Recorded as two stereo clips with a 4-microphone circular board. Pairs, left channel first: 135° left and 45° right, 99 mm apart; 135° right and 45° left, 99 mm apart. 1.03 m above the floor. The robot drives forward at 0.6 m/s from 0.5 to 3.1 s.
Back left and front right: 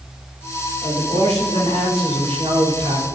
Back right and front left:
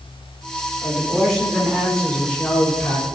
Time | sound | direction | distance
0.8 | a man speaking | 40° right | 3.5 m